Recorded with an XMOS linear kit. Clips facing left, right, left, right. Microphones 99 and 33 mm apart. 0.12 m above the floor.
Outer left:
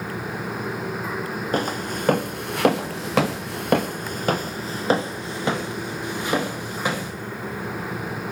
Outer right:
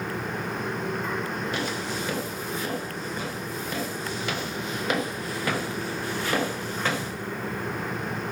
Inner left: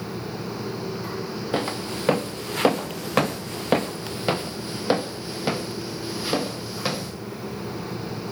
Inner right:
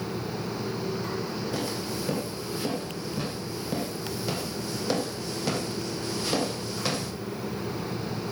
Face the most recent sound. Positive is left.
turn(degrees=10)  # may be behind; listen again after turning